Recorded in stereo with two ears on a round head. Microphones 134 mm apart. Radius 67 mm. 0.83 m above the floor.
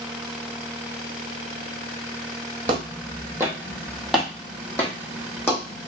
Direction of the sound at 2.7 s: 35° right (ahead or behind).